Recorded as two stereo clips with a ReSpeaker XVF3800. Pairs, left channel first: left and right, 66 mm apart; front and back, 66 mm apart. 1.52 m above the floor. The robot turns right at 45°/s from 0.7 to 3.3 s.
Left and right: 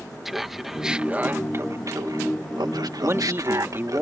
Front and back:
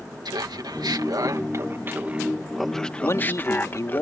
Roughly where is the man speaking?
Ahead right.